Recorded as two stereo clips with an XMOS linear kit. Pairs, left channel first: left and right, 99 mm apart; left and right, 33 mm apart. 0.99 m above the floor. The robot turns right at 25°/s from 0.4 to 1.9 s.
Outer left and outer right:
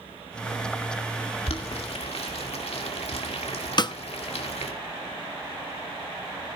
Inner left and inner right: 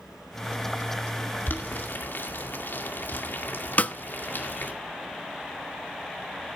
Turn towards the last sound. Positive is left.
turn(degrees=45)  # may be behind; listen again after turning